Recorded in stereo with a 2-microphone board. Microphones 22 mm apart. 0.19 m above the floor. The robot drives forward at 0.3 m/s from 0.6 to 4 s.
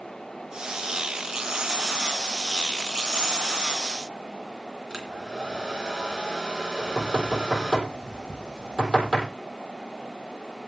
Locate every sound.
4.9 s a hair dryer: 30° right (ahead or behind), 3 m
6.8 s knocking: 5° left (ahead or behind), 6.5 m